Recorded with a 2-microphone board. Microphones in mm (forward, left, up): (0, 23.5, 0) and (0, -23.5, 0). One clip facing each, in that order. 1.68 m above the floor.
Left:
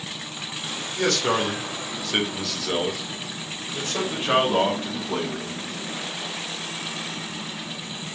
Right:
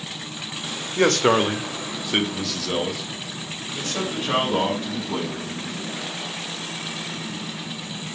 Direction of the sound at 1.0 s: 55° right (ahead or behind).